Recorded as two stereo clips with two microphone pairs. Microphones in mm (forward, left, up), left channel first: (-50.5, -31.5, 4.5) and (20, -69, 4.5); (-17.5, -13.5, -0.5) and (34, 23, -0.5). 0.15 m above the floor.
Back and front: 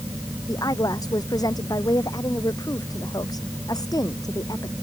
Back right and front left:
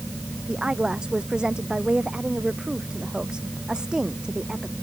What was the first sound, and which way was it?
A woman speaking, 110° left.